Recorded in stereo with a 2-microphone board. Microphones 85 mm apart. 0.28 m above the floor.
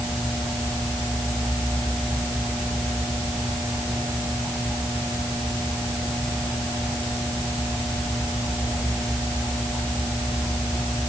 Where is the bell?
I don't hear a bell.